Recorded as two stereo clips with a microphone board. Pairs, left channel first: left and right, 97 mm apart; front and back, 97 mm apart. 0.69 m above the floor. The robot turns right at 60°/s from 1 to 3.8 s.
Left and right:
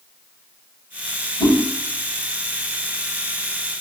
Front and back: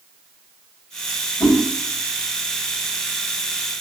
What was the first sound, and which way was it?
A whoosh, 70° left.